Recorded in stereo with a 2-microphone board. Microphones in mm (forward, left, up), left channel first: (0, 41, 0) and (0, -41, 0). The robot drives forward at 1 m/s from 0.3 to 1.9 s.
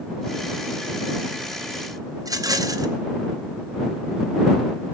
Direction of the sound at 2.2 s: 50° right (ahead or behind).